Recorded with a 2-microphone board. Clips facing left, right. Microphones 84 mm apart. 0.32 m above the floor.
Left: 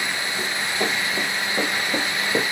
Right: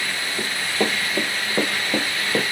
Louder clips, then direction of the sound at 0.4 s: Right 3 dB; 35° right (ahead or behind).